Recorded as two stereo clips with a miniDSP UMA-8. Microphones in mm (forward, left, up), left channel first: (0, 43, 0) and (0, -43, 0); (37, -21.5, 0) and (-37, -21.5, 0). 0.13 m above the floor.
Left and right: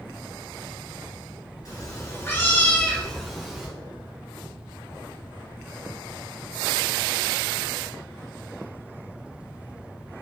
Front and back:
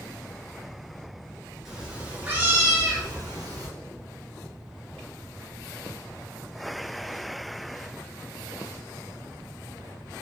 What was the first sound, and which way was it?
A cat meowing, 95° left.